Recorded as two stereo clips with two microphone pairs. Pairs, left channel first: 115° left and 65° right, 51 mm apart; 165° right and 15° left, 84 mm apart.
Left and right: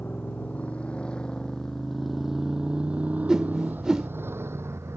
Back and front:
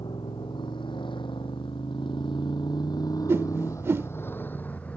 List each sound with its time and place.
0.0 s a motorcycle: 170° left; by 5.0 s 95° right
3.3 s a whoosh: 5° right